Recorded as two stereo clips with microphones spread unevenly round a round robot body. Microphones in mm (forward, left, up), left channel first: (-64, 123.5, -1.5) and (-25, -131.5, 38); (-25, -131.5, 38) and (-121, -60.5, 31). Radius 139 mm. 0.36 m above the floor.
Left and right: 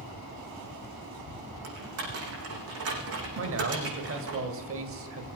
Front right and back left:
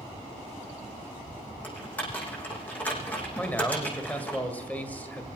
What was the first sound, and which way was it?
Typing on a keyboard, 115° right.